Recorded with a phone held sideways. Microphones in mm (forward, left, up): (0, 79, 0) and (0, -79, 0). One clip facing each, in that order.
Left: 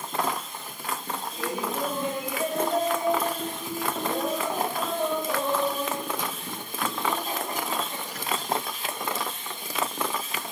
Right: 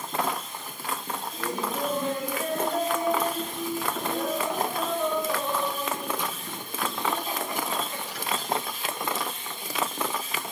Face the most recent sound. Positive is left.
turn(degrees=45)  # may be behind; listen again after turning